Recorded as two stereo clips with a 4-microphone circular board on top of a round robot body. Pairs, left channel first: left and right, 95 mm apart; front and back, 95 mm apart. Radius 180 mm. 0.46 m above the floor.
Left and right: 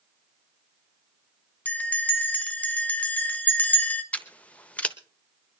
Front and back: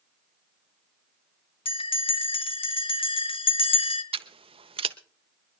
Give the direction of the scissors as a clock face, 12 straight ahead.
6 o'clock.